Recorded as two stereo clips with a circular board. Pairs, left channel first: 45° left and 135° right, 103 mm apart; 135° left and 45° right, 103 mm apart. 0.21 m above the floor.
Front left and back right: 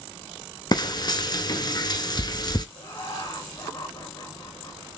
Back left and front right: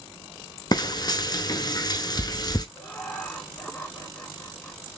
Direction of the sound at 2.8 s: 70° left.